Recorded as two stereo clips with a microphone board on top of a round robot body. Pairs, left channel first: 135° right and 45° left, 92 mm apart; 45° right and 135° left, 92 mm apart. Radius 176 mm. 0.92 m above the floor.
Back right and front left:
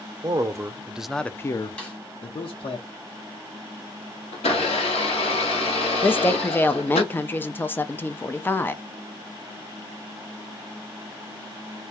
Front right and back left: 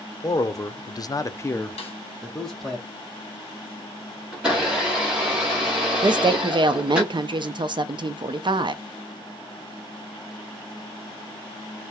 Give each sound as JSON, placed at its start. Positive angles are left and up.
{"t": 0.2, "sound": "a man speaking", "azimuth_deg": 0, "distance_m": 0.7}
{"t": 1.8, "sound": "a snare drum", "azimuth_deg": -60, "distance_m": 0.7}
{"t": 4.3, "sound": "a blender", "azimuth_deg": -145, "distance_m": 0.7}
{"t": 6.0, "sound": "a woman speaking", "azimuth_deg": 160, "distance_m": 0.5}